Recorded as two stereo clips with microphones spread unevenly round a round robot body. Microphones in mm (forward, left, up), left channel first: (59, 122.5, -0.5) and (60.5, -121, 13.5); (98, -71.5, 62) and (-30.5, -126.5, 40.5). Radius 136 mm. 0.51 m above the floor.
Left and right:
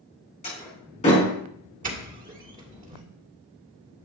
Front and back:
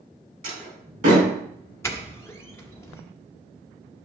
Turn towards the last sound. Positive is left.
turn(degrees=-50)